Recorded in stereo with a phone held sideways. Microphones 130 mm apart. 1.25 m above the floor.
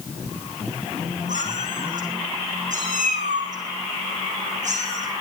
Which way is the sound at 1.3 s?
75° right (ahead or behind).